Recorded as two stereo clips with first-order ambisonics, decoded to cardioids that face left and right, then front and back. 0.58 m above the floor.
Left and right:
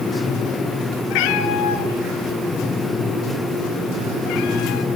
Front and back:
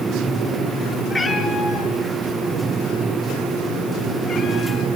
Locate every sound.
1.1 s a cat meowing: 80° left, 4.5 m; by 4.8 s 55° left, 5 m